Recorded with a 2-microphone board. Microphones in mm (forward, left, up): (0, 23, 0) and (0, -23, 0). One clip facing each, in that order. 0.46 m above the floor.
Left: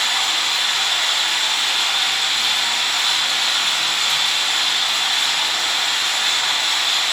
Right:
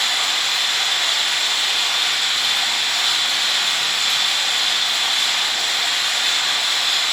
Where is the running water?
70° left (ahead or behind), 1.7 m.